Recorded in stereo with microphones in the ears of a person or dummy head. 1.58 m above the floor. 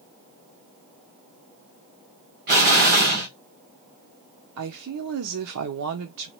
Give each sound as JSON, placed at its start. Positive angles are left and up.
{"t": 2.5, "sound": "an explosion", "side_deg": -45, "distance_m": 1.3}
{"t": 4.6, "sound": "a woman speaking", "side_deg": -85, "distance_m": 0.6}